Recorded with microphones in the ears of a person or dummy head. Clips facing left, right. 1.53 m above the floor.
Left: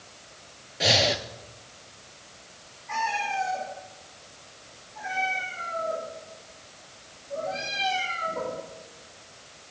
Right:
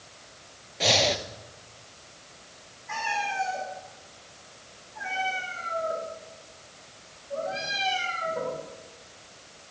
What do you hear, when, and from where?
0.8 s breathing: 5° left (ahead or behind), 0.5 m
2.9 s a cat meowing: 10° right (ahead or behind), 4 m